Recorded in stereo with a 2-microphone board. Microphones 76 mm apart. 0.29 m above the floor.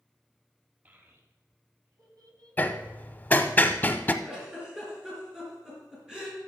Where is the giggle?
10° right (ahead or behind), 4 m.